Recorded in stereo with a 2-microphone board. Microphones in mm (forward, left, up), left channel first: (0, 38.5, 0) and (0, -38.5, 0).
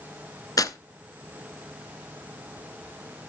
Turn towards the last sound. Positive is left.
turn(degrees=50)  # may be behind; listen again after turning